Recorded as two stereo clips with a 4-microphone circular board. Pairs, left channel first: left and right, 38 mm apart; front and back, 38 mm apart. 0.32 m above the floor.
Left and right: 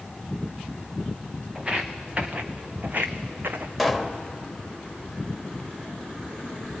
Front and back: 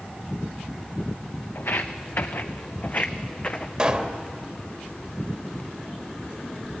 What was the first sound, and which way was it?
Footsteps, 15° right.